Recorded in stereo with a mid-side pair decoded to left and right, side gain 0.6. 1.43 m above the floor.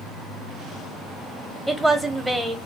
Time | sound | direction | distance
1.7 | a woman speaking | 10° right | 1.3 m